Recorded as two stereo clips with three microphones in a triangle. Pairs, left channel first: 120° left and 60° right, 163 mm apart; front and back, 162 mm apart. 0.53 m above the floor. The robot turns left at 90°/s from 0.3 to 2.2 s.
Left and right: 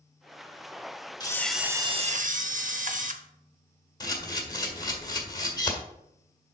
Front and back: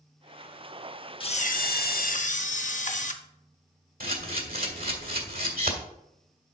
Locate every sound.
1.2 s a camera shutter: 60° left, 0.7 m; by 3.1 s 30° right, 0.7 m
4.0 s a camera shutter: 175° right, 1.6 m